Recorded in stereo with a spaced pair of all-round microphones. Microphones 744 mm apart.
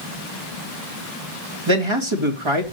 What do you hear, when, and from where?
1.7 s a man speaking: 40° right (ahead or behind), 2 m